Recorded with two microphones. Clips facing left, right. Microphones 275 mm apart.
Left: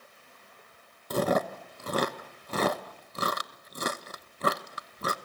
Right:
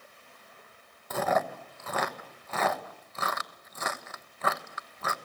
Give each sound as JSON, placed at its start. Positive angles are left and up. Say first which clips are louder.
{"t": 1.1, "sound": "chewing", "louder": "left 3 dB", "side_deg": 40, "distance_m": 1.1}